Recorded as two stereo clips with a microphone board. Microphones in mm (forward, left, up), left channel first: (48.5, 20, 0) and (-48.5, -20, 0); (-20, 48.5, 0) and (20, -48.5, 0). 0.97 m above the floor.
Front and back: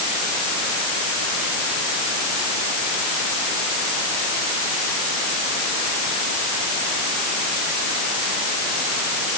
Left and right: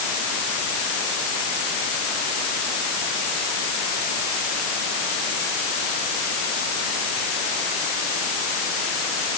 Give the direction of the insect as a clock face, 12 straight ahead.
I don't hear an insect.